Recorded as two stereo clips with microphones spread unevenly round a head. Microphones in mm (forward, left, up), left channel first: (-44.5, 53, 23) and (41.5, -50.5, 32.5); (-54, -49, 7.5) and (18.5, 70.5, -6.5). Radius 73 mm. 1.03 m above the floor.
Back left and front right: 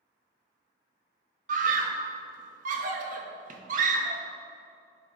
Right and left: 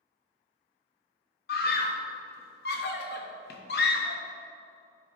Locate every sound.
1.5 s a scream: 85° right, 1.0 m